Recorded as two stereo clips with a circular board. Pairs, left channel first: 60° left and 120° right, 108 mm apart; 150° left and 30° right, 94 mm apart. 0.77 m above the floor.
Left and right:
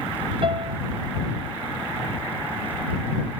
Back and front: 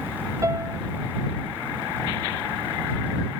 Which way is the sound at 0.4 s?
85° right.